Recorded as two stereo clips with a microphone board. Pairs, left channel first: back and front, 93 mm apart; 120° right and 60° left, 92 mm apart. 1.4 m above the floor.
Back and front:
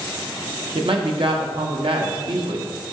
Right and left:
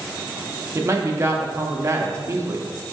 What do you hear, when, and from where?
0.8 s a man speaking: 5° left, 0.7 m